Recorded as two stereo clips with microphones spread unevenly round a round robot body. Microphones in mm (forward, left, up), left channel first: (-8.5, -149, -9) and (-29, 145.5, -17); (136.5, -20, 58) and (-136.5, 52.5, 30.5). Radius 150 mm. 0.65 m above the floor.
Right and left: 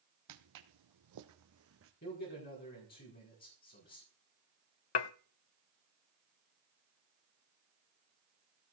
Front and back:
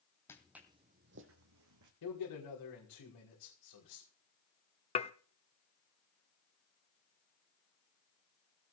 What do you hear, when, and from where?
0.3 s footsteps: 65° left, 1.7 m; by 1.9 s 140° left, 2.5 m
2.0 s a man speaking: 25° right, 5 m
5.0 s dishes clattering: 85° right, 0.8 m